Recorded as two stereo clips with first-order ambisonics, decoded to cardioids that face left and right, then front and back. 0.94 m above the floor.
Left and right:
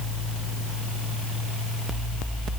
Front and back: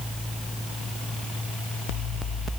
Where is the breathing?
No breathing in this recording.